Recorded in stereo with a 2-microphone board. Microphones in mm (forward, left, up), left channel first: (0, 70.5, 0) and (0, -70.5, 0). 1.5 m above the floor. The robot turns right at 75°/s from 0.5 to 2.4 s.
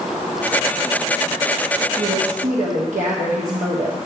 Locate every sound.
2.0 s a woman speaking: 135° right, 1.4 m; by 4.0 s 105° right, 1.4 m